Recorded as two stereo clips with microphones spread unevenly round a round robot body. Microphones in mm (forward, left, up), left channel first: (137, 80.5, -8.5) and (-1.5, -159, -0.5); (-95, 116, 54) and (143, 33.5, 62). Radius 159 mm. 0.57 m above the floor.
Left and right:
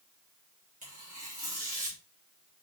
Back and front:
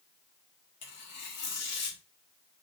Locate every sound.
0.8 s tearing paper: 175° left, 2.5 m